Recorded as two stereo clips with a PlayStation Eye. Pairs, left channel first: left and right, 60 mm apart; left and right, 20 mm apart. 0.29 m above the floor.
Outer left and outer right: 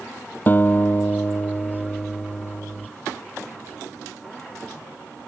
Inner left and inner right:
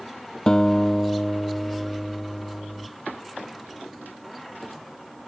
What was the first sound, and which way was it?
A guitar, 35° left (ahead or behind).